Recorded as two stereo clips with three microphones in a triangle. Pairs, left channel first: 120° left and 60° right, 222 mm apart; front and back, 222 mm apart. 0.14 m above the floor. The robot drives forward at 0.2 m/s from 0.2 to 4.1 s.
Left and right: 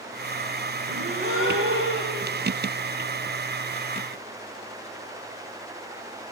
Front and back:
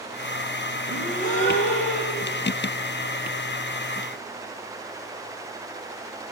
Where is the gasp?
55° right, 5.5 m; by 2.3 s 60° right, 5.5 m.